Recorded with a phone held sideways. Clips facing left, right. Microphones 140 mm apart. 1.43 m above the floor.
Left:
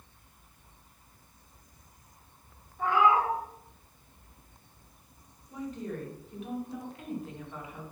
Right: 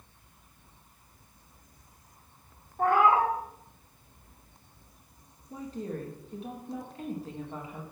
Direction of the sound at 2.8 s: 50° right (ahead or behind).